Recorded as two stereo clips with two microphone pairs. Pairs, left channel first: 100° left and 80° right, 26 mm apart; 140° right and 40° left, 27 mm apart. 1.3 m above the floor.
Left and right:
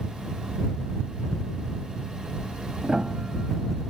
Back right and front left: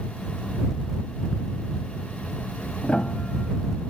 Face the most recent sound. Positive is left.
turn(degrees=-115)